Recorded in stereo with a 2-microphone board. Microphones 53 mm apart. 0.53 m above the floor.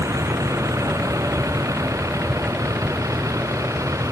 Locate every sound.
0.0 s a vehicle: 80° right